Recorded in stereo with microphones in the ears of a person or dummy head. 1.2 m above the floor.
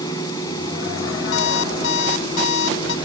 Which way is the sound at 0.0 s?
25° left (ahead or behind).